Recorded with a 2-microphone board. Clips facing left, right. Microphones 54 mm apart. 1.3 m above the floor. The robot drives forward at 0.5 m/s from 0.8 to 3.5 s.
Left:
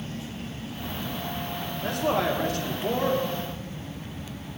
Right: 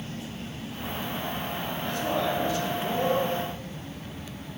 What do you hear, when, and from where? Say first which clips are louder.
1.8 s a man speaking: left 3 dB; 65° left (ahead or behind), 1.4 m; by 3.2 s 45° left (ahead or behind), 1.7 m